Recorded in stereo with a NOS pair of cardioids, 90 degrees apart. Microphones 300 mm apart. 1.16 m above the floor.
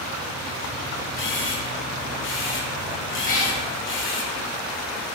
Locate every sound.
1.2 s a camera shutter: 40° left, 0.7 m
3.2 s a cat meowing: 25° left, 1.2 m